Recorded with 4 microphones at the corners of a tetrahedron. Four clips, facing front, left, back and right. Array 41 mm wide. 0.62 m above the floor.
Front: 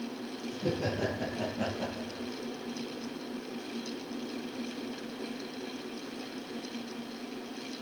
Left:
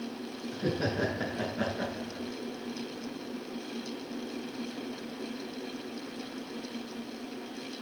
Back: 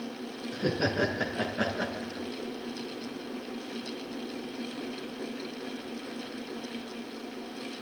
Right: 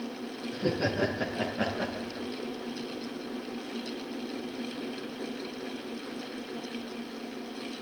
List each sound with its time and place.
0.5 s laughter: 175° left, 8 m; by 2.3 s straight behind, 8.5 m